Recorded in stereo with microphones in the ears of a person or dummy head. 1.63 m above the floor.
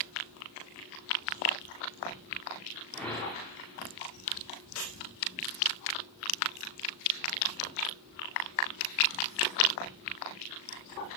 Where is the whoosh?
10° left (ahead or behind), 2 m.